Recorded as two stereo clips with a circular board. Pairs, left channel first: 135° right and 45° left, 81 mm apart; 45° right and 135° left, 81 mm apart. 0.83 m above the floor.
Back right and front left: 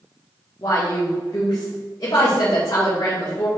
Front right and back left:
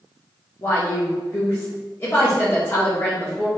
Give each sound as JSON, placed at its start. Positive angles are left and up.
{"t": 0.6, "sound": "a woman speaking", "azimuth_deg": -100, "distance_m": 1.8}